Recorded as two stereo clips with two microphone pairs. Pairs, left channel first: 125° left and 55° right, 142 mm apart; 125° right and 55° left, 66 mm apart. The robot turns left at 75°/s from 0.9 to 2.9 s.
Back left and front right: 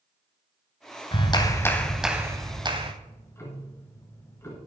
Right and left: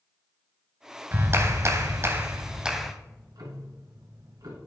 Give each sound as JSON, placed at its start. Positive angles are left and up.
{"t": 1.1, "sound": "a clap", "azimuth_deg": 100, "distance_m": 1.2}
{"t": 3.0, "sound": "ticking", "azimuth_deg": 55, "distance_m": 2.5}